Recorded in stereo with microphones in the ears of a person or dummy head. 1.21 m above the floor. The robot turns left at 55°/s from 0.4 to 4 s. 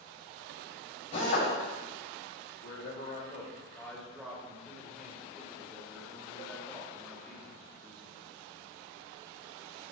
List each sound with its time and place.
1.1 s a drill: 35° left (ahead or behind), 2.5 m; by 1.5 s 55° left (ahead or behind), 2.5 m
2.6 s a man speaking: 80° left, 2 m; by 8.2 s straight ahead, 2 m